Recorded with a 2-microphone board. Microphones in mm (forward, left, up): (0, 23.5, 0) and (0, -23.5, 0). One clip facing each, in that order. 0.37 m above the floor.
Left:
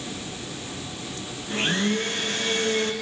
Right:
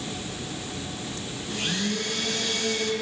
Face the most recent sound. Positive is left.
turn(degrees=30)  # may be behind; listen again after turning